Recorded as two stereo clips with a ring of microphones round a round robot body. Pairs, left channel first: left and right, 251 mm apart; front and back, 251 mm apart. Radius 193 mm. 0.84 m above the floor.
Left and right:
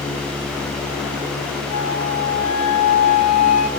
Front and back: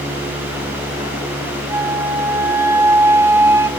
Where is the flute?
100° left, 2.5 m.